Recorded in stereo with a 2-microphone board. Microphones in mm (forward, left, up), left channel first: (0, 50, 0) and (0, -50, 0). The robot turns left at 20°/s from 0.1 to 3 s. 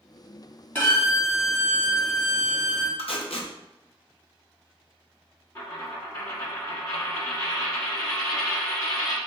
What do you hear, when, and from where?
0.8 s a violin: 160° left, 1.4 m; by 2.9 s 120° left, 1.4 m
3.0 s tape being pulled: 70° left (ahead or behind), 0.7 m
5.5 s a dropped coin: 35° left (ahead or behind), 1.1 m